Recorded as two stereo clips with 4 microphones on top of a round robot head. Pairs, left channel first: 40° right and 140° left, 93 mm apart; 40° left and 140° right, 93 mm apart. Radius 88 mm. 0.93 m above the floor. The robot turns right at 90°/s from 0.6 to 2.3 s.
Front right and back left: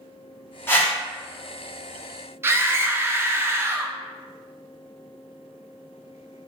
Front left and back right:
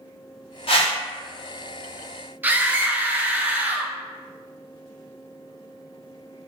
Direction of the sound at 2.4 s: 170° left.